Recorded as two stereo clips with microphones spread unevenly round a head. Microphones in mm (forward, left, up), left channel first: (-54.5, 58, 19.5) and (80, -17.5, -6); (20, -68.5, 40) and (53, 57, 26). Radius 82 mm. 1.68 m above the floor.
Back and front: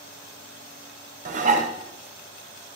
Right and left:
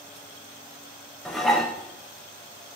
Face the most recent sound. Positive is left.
turn(degrees=-25)